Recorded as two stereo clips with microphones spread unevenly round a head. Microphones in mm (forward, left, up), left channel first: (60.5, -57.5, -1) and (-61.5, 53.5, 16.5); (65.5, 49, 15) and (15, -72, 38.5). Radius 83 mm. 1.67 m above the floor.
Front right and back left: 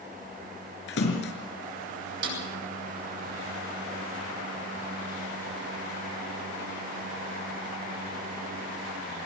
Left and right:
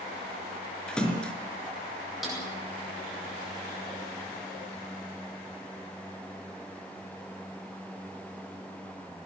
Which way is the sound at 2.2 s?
160° left.